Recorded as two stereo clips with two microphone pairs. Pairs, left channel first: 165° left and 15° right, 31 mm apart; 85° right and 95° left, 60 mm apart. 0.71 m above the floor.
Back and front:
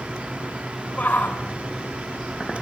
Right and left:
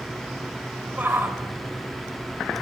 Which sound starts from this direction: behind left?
A shout, at 1.0 s.